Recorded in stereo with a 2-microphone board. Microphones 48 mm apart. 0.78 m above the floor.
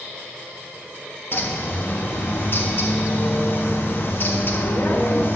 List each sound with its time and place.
1.3 s a bird: 50° left (ahead or behind), 1.0 m